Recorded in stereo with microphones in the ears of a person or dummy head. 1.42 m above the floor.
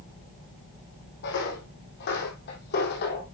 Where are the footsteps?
60° left (ahead or behind), 4 m; by 3.2 s 50° left (ahead or behind), 3 m.